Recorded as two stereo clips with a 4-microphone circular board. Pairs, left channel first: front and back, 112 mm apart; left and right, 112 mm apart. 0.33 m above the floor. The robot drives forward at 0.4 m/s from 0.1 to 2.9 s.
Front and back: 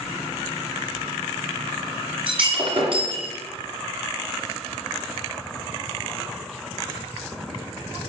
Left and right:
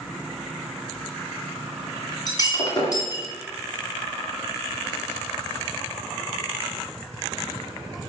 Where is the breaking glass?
145° left, 2.5 m.